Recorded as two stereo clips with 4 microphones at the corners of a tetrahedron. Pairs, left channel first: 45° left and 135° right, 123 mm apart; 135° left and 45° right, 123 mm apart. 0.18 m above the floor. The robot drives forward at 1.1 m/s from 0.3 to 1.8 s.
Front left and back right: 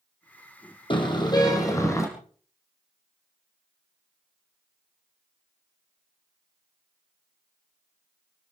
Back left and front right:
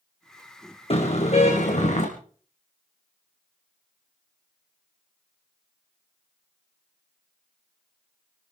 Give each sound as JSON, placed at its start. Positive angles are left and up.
{"t": 0.9, "sound": "a car horn", "azimuth_deg": 95, "distance_m": 3.5}